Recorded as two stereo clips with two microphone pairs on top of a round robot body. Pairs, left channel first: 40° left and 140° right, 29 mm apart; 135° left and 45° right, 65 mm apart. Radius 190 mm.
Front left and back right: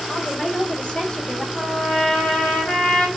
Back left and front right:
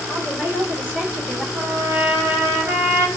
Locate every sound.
0.1 s a woman speaking: 10° right, 2 m; by 1.4 s 25° left, 1.4 m
1.6 s a trumpet: 5° left, 1.9 m